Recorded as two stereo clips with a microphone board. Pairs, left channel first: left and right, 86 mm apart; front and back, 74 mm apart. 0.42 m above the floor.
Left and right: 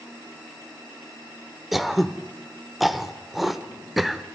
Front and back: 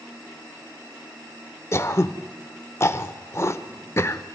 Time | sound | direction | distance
1.7 | throat clearing | 5° right | 0.7 m